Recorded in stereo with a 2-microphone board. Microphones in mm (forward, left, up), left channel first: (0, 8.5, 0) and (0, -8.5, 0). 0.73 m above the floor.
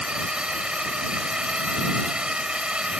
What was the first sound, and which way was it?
A drone, 70° right (ahead or behind).